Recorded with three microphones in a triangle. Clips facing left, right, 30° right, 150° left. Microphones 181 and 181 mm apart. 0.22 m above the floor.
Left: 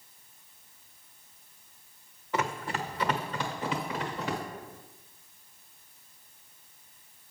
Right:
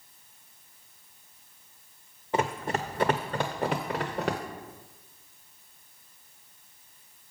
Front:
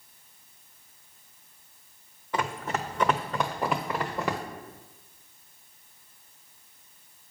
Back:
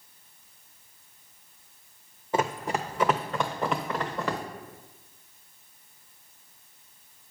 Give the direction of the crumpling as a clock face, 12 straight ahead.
I don't hear crumpling.